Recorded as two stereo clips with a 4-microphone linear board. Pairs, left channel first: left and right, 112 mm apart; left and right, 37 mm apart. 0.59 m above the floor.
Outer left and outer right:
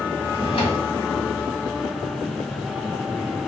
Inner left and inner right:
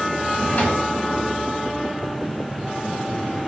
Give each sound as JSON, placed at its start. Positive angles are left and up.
{"t": 0.2, "sound": "a drawer", "side_deg": 55, "distance_m": 0.9}